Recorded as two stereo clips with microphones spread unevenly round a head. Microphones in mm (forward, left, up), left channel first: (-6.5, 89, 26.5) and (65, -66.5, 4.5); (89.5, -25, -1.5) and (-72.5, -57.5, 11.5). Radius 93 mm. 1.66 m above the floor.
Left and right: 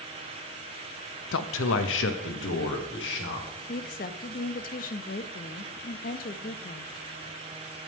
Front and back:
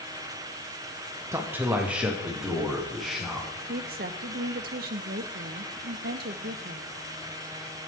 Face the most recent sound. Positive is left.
turn(degrees=155)